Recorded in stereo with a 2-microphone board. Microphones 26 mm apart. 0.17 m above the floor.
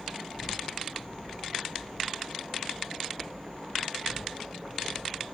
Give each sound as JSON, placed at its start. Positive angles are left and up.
{"t": 0.0, "sound": "an insect", "side_deg": 50, "distance_m": 1.7}